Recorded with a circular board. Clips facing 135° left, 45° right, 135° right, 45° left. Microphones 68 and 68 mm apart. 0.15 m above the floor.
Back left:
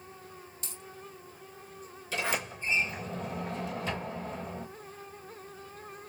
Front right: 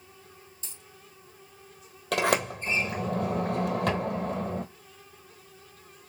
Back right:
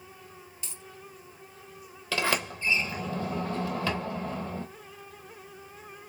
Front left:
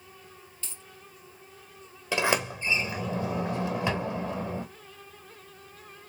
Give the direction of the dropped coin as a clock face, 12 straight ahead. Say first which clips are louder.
Back left 4 dB, back right 1 dB; 7 o'clock.